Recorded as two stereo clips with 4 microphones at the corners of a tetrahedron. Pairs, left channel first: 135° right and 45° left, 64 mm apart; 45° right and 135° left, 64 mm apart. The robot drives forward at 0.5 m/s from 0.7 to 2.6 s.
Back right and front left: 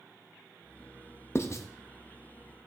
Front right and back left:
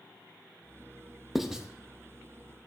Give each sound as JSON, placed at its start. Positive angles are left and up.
{"t": 1.4, "sound": "writing", "azimuth_deg": -140, "distance_m": 0.5}